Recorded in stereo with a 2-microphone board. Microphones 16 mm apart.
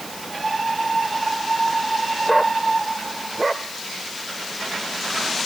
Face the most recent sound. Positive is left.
No sound to turn to.